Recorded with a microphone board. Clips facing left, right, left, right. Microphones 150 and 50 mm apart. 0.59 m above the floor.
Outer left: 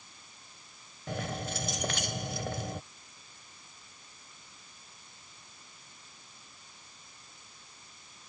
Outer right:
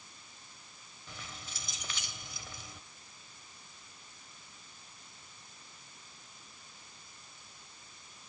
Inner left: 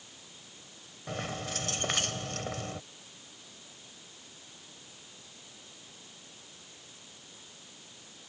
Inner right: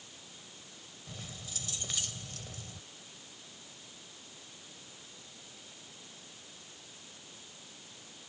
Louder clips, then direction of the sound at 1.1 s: Outer left 14 dB, inner left 12 dB; 70° left (ahead or behind).